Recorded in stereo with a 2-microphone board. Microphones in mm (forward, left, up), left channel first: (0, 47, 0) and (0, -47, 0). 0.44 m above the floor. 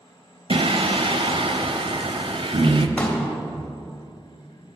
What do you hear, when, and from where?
0.5 s singing: 65° right (ahead or behind), 0.7 m
3.0 s a pop: 10° left (ahead or behind), 1.8 m